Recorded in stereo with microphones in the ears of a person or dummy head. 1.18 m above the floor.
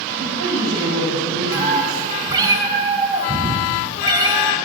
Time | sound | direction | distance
0.1 | a woman speaking | 85° right | 6.5 m
1.5 | a cat meowing | 20° right (ahead or behind) | 2.5 m